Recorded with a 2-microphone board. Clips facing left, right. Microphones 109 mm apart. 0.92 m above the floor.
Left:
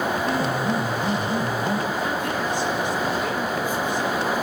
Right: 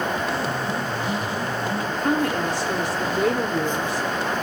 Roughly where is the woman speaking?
Right.